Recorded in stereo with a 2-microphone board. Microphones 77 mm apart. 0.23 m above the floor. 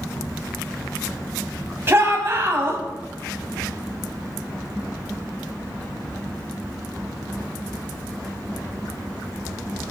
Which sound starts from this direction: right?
A shout, at 1.9 s.